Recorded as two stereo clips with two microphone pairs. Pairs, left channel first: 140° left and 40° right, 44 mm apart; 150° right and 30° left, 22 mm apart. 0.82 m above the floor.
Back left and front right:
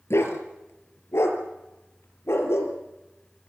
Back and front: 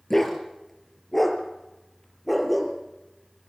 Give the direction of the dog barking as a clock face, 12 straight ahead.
7 o'clock.